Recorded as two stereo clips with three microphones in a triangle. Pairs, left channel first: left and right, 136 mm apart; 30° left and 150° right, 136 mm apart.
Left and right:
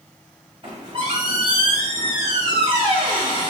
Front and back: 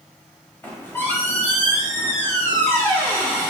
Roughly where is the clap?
I don't hear a clap.